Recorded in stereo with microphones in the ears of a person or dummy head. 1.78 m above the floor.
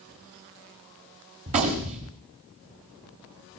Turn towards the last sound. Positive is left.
turn(degrees=-25)  # may be behind; listen again after turning